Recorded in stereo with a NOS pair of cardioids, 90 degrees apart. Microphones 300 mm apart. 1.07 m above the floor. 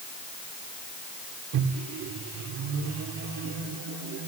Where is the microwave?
70° right, 2.5 m.